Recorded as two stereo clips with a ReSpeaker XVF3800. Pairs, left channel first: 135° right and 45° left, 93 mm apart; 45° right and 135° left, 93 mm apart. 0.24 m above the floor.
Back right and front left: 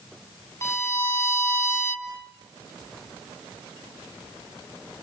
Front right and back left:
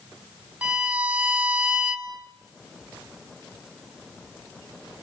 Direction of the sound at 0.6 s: 160° right.